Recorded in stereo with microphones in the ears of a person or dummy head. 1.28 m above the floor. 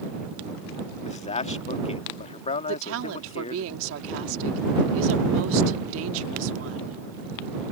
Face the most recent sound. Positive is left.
turn(degrees=-80)